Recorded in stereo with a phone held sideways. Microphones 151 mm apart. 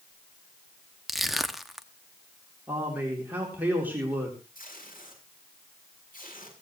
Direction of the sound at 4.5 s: 70° left (ahead or behind).